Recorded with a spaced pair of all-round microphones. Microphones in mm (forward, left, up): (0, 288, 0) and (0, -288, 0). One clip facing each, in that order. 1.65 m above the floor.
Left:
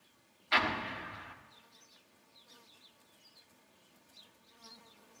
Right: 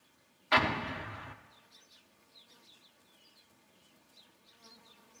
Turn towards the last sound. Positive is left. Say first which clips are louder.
# right 4 dB
turn(degrees=-75)  # may be behind; listen again after turning